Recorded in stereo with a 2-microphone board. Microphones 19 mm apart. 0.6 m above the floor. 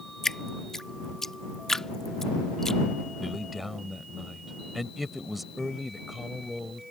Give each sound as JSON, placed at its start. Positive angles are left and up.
{"t": 0.2, "sound": "dripping", "side_deg": 25}
{"t": 3.2, "sound": "a man speaking", "side_deg": -10}